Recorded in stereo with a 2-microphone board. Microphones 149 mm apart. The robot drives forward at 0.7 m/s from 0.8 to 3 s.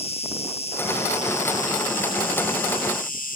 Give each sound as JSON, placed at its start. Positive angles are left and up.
{"t": 0.0, "sound": "an insect", "side_deg": 40, "distance_m": 1.8}